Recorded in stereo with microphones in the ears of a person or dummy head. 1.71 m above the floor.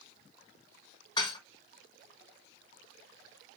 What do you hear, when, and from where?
1.2 s dishes clattering: 30° left (ahead or behind), 1.4 m